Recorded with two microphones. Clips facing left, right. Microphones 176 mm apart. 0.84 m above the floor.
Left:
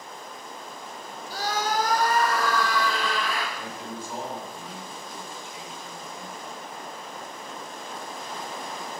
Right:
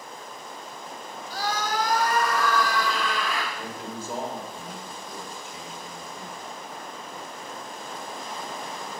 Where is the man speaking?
45° right (ahead or behind), 3.5 m.